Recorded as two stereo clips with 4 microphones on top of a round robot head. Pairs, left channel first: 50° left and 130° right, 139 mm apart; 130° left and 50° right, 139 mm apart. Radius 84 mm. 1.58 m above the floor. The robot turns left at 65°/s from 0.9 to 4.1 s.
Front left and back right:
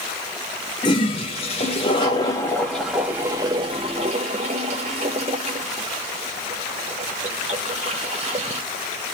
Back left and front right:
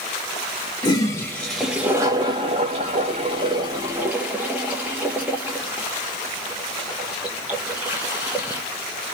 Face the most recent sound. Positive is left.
turn(degrees=-125)